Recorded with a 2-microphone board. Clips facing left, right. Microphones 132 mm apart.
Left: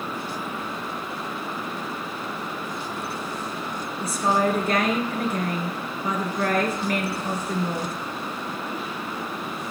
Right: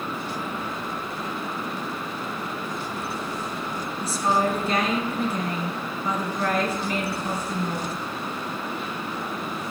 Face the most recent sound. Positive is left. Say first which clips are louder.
# left 1 dB
turn(degrees=55)  # may be behind; listen again after turning